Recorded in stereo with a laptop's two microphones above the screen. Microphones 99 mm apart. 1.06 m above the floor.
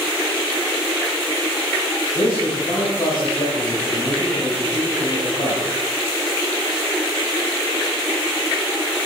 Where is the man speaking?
75° left (ahead or behind), 6.5 m.